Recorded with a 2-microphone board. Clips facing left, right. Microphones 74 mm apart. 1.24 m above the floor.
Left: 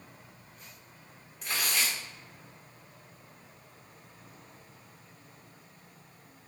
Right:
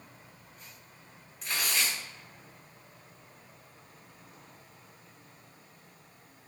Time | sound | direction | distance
1.4 | tearing paper | centre (ahead or behind) | 1.3 m